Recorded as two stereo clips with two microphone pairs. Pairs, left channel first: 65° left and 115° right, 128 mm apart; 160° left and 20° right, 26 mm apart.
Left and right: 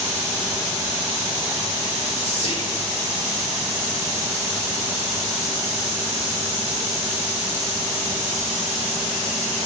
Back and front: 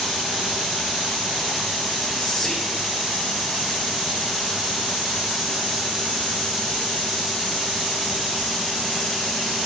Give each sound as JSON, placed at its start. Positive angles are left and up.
{"t": 2.2, "sound": "whispering", "azimuth_deg": 85, "distance_m": 0.6}